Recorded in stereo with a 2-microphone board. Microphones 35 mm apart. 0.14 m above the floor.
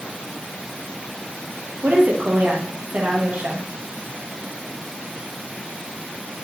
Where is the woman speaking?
60° right (ahead or behind), 3.5 m.